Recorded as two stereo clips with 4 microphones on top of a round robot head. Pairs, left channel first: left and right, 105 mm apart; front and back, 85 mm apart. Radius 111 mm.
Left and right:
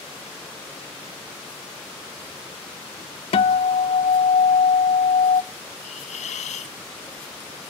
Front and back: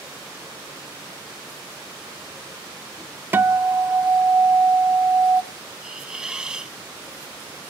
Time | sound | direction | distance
3.3 | a guitar | 115° left | 0.5 m
5.8 | a hiss | 100° left | 1.1 m